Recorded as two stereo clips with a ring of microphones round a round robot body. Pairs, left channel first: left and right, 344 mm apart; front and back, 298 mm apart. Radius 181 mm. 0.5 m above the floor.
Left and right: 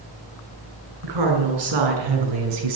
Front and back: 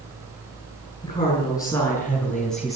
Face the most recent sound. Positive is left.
turn(degrees=-90)